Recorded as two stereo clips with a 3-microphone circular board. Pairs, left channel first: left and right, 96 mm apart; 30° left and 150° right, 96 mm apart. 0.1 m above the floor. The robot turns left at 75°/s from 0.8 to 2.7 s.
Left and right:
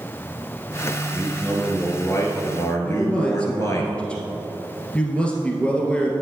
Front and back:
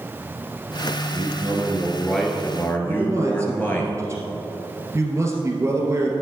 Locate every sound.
1.1 s a man speaking: 165° right, 1.8 m; by 3.8 s 80° left, 1.8 m
2.8 s a man speaking: 165° left, 2 m